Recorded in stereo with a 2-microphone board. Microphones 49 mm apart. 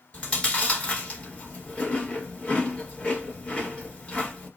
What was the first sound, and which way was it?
Chewing, 25° left (ahead or behind).